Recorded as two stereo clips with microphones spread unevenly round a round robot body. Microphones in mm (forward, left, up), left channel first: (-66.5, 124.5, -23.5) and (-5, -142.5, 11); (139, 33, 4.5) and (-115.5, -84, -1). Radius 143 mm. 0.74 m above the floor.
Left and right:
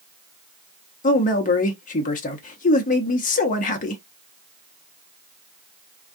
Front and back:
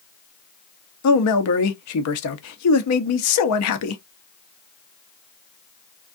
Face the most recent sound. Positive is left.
turn(degrees=50)